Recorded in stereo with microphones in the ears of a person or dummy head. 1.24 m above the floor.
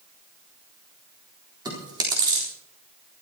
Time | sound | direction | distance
1.6 | chewing | 25° right (ahead or behind) | 3.5 m